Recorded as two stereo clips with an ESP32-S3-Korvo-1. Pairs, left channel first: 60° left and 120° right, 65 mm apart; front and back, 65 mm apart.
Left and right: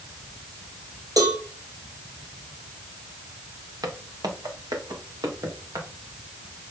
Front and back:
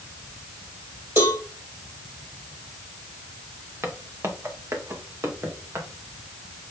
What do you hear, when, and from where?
1.2 s a cowbell: 130° right, 2.5 m
3.8 s footsteps: 135° right, 2 m; by 5.9 s 140° right, 3.5 m